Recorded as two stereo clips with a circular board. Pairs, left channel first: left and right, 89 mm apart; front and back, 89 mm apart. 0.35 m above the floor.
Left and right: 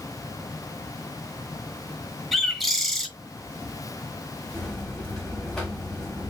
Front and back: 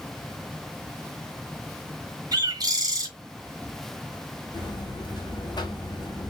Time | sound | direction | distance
2.3 | a bird | straight behind | 1.1 m
4.5 | a buzzer | 10° left | 1.5 m